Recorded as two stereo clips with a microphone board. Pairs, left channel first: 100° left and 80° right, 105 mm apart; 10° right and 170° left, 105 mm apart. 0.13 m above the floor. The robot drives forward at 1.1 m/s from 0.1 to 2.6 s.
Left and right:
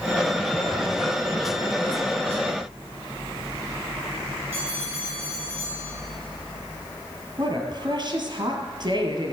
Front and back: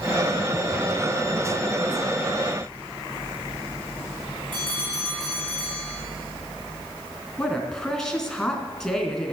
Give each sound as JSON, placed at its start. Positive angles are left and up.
{"t": 4.5, "sound": "a bell", "azimuth_deg": -145, "distance_m": 7.0}
{"t": 7.4, "sound": "a woman speaking", "azimuth_deg": -95, "distance_m": 2.0}